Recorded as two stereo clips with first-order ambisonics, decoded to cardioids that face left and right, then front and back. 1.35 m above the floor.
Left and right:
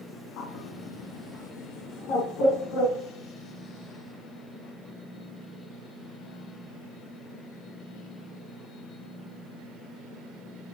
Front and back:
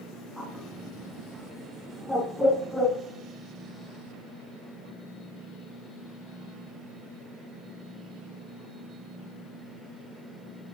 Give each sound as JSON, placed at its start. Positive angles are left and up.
{"t": 0.4, "sound": "a bird", "azimuth_deg": 95, "distance_m": 2.0}